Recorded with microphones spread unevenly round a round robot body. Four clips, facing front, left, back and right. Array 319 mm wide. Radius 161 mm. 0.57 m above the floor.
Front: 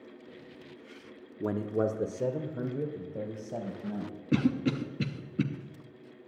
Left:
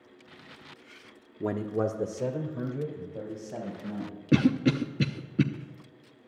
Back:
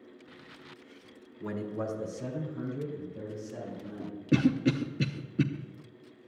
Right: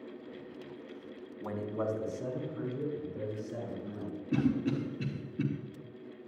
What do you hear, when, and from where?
1.4 s a man speaking: 55° left, 1.1 m; by 4.1 s 25° left, 4.5 m
4.3 s a cough: 130° left, 0.8 m